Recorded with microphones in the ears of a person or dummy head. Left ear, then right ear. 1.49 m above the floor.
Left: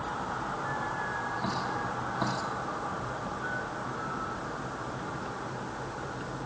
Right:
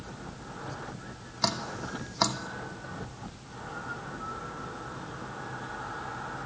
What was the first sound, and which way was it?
Dripping, 75° right (ahead or behind).